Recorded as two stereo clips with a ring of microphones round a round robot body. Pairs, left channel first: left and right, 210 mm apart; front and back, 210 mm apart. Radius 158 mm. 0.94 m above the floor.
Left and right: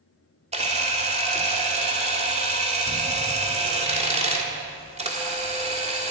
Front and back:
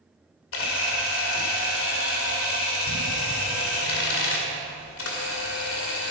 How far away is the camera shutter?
About 1.9 m.